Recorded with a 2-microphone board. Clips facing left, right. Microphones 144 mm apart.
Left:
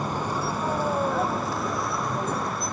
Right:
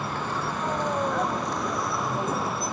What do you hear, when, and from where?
0.0 s a vehicle: 15° left (ahead or behind); by 2.7 s 5° right (ahead or behind)